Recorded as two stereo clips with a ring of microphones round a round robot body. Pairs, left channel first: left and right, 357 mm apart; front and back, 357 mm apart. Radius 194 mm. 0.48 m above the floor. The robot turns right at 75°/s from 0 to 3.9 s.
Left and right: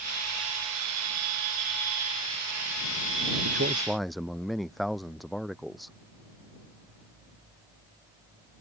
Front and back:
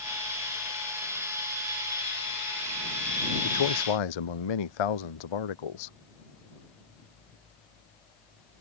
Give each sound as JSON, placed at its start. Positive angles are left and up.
{"t": 3.4, "sound": "a man speaking", "azimuth_deg": -35}